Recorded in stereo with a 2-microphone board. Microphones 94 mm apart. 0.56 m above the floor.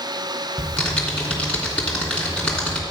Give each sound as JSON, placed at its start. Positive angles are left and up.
{"t": 0.6, "sound": "typing on a keyboard", "side_deg": 15, "distance_m": 3.0}